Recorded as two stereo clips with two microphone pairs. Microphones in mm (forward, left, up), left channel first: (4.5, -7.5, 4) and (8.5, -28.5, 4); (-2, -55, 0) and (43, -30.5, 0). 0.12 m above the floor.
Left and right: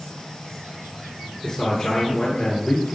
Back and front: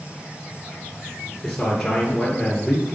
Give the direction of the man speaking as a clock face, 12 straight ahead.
8 o'clock.